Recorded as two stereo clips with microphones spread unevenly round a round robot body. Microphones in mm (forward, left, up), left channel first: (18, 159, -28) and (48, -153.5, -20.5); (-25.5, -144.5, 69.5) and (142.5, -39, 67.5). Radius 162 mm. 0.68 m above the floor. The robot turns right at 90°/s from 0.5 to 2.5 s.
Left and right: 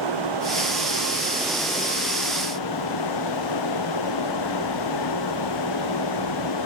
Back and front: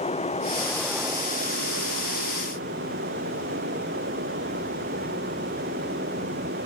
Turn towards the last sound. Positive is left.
turn(degrees=90)